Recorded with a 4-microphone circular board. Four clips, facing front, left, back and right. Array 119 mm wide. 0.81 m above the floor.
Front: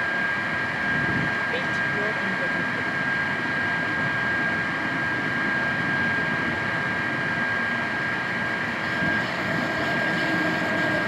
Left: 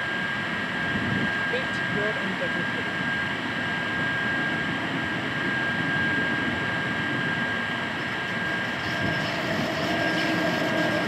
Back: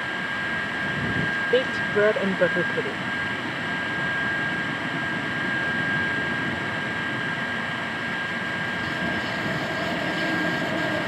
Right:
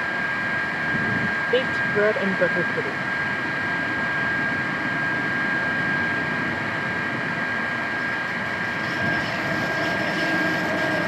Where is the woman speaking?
140° right.